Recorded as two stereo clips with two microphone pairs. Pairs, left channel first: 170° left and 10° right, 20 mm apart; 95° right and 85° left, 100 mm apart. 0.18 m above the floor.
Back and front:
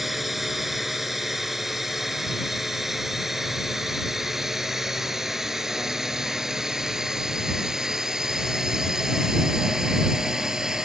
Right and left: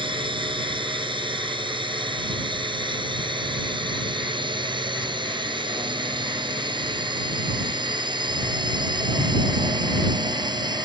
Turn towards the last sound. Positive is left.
turn(degrees=50)